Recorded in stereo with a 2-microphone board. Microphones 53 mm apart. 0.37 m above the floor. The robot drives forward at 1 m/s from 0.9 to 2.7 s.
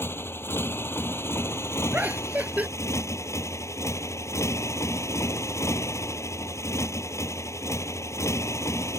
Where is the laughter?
30° right (ahead or behind).